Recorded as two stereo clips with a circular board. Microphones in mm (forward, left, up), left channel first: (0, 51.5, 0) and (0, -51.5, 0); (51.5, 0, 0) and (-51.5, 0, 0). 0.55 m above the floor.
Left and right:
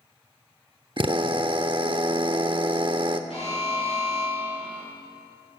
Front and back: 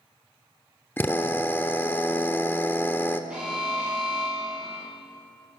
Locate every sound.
1.0 s a drill: 65° right, 0.7 m
3.3 s an alarm: 105° left, 6 m